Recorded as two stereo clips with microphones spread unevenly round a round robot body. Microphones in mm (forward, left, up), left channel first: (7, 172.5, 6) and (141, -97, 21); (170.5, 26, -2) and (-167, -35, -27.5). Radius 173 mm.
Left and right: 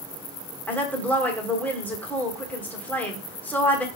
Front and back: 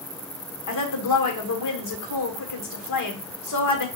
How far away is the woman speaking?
About 1.3 m.